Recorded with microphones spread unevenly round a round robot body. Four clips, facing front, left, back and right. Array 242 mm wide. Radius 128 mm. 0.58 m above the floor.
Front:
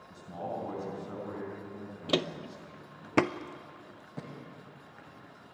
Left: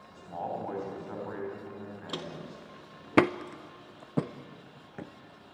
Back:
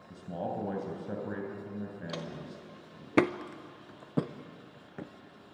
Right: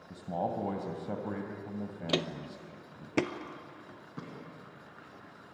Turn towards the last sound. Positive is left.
turn(degrees=135)